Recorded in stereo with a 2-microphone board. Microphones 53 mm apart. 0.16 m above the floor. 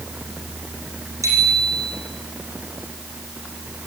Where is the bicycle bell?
70° right (ahead or behind), 6 m.